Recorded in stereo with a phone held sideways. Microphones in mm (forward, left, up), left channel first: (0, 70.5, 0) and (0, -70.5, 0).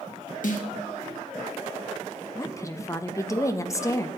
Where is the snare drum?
65° left (ahead or behind), 1.2 m.